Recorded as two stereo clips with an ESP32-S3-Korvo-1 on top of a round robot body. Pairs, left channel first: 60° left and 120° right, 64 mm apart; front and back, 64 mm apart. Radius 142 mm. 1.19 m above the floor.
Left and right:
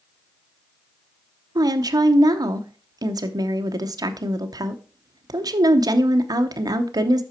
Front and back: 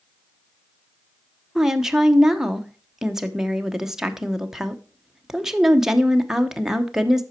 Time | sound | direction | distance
1.6 | a woman speaking | 95° right | 0.9 m